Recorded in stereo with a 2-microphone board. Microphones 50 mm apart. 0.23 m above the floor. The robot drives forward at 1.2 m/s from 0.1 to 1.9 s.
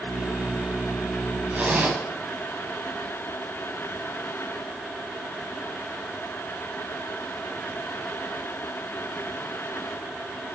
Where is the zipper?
35° right (ahead or behind), 1.6 m.